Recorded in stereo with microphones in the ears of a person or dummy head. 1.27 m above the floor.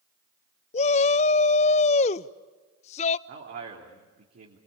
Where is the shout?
30° left (ahead or behind), 0.5 m.